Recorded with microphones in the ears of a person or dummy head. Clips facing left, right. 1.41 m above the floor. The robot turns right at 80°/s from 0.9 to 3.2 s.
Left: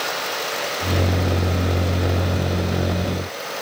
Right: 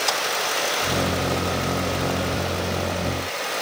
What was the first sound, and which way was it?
Only background noise.